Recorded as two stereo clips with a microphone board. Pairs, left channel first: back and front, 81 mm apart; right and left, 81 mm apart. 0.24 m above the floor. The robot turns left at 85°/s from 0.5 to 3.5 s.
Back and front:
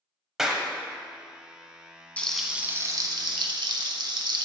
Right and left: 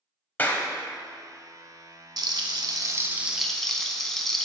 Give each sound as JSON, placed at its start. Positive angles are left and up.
{"t": 0.4, "sound": "a clap", "azimuth_deg": -75, "distance_m": 0.8}
{"t": 2.2, "sound": "frying", "azimuth_deg": 110, "distance_m": 0.7}